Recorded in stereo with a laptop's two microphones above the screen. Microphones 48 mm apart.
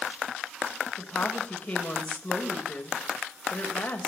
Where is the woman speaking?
25° left (ahead or behind), 4 m.